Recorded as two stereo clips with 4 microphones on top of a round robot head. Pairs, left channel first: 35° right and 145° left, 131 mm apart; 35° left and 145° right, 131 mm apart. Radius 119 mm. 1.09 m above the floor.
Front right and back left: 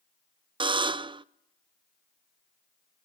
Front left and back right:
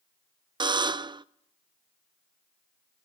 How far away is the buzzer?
About 0.5 m.